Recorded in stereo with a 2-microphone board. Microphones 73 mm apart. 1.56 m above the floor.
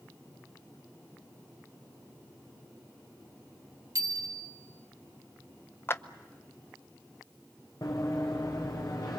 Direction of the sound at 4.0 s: 50° right (ahead or behind).